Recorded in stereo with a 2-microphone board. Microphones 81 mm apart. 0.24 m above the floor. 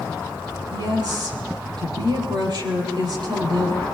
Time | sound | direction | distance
0.7 | a woman speaking | 65° right (ahead or behind) | 8 m